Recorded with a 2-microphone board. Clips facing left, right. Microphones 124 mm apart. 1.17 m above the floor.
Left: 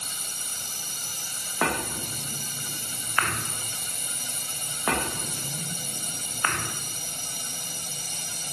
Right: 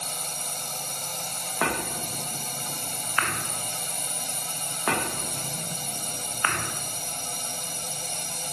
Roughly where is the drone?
Right.